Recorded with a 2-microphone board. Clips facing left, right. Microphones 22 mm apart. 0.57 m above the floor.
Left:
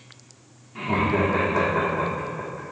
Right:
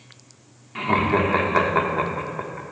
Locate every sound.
0.8 s laughter: 45° right (ahead or behind), 1.3 m